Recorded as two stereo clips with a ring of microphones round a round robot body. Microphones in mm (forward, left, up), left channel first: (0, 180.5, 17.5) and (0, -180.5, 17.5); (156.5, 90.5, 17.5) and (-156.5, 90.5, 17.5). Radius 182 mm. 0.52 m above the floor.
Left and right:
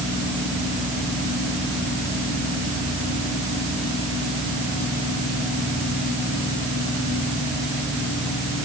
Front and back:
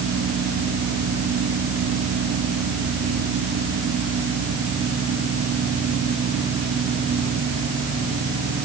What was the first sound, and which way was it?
Only background noise.